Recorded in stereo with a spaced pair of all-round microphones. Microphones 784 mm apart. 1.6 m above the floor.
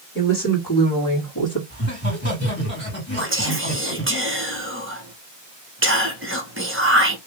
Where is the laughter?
15° left (ahead or behind), 3 m.